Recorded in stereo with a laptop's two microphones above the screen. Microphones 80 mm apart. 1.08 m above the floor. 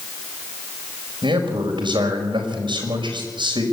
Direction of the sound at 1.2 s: 85° right.